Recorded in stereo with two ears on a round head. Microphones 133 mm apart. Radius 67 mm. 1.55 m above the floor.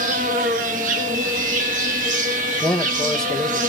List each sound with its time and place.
0.0 s an insect: 60° right (ahead or behind), 2.5 m
2.6 s a man speaking: 5° left (ahead or behind), 1.6 m